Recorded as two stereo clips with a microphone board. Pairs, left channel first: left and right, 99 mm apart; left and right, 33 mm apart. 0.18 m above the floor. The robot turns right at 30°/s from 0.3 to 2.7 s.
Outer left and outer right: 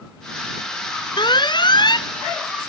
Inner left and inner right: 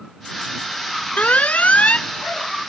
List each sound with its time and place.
1.2 s an alarm: 55° left (ahead or behind); by 2.1 s 50° left (ahead or behind)